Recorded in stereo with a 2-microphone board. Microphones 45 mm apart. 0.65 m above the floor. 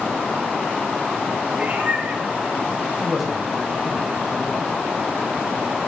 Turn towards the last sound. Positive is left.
turn(degrees=-5)  # may be behind; listen again after turning